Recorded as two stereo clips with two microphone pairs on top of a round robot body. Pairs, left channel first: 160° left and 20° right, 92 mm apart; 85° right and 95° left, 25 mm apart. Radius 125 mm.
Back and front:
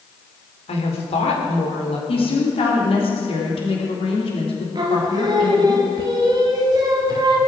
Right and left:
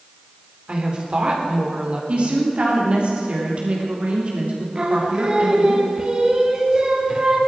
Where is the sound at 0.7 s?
145° left, 3.5 m.